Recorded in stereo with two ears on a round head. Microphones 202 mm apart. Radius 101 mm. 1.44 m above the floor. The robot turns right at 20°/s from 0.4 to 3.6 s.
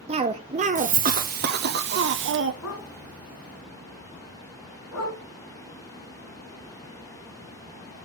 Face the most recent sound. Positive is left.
turn(degrees=70)  # may be behind; listen again after turning